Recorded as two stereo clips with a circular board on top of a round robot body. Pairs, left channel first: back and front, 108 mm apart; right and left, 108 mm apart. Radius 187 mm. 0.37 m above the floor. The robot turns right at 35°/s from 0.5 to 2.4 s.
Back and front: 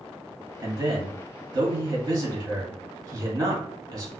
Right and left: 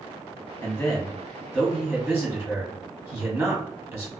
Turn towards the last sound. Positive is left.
turn(degrees=40)